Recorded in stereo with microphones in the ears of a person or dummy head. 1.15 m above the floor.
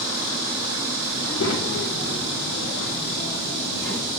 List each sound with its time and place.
1.2 s a child speaking: 70° left (ahead or behind), 2 m; by 4.1 s 75° left (ahead or behind), 6 m